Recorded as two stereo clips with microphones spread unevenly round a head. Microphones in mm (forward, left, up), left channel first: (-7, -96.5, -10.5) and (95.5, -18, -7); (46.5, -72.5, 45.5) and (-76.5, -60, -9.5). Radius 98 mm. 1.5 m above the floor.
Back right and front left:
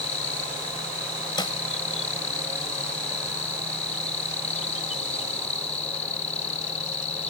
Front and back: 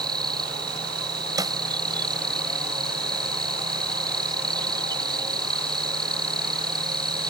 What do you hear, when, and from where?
0.0 s an insect: 120° right
1.4 s a snare drum: 105° right